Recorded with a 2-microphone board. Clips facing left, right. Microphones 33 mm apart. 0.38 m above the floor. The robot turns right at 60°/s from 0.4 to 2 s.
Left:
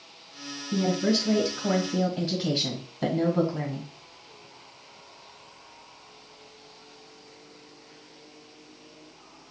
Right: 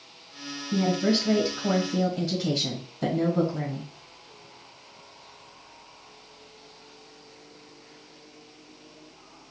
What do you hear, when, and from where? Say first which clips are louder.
0.7 s a woman speaking: right 1 dB; 55° right, 2.5 m; by 3.9 s 25° left, 2.5 m